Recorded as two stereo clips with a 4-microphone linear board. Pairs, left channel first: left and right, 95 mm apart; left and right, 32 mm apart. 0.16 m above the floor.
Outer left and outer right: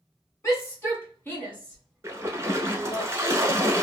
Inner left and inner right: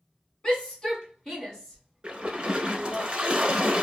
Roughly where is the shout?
Left.